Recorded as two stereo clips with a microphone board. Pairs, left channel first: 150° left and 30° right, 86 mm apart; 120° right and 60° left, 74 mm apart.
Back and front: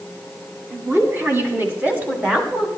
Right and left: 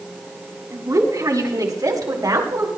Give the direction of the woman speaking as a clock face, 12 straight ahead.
11 o'clock.